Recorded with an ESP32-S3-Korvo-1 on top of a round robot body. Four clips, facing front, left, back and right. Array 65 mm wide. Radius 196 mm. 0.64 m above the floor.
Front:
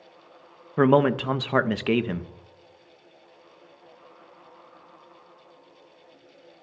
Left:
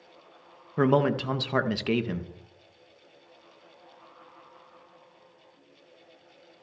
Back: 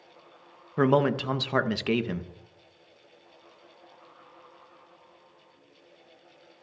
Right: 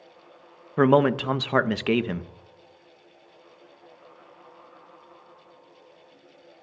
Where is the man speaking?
55° right, 0.8 m.